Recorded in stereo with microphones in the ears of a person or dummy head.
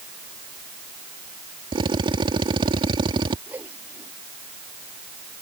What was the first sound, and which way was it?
A drill, 25° right (ahead or behind).